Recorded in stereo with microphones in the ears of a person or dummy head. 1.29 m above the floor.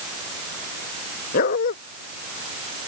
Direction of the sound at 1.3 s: 55° left (ahead or behind).